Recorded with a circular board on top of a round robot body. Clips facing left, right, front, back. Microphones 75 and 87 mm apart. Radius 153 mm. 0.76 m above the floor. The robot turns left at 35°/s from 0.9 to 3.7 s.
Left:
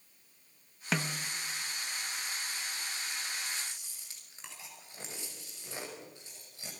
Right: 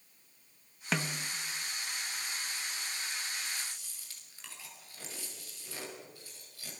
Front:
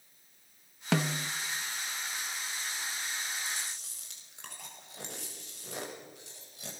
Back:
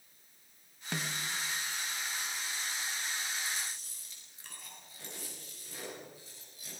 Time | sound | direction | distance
0.9 | a snare drum | straight ahead | 0.6 m
3.5 | chewing | 30° left | 5.5 m